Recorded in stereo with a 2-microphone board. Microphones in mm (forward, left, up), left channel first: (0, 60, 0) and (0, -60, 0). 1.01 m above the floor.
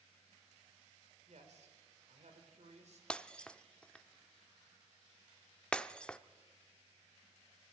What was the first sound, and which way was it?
A man speaking, 70° right (ahead or behind).